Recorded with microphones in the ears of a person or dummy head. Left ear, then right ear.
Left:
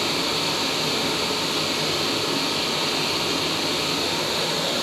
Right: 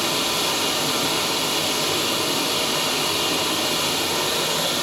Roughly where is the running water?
Right.